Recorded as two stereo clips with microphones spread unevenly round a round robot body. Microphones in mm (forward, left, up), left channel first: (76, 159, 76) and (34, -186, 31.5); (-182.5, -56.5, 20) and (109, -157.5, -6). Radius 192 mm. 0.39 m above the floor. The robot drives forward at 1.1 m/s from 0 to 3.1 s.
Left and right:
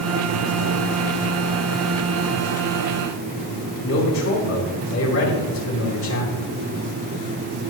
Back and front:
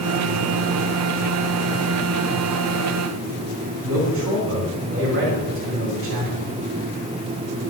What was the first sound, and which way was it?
A man speaking, 35° left.